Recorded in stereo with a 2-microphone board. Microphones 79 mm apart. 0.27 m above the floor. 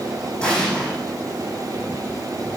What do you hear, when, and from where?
0.4 s an explosion: 10° left (ahead or behind), 4.5 m